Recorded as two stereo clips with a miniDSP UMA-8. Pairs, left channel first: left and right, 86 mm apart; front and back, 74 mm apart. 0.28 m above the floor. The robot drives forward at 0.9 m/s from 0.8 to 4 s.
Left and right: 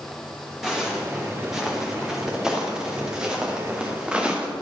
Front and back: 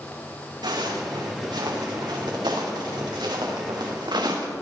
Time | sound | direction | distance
0.6 | footsteps | 175° right | 3.5 m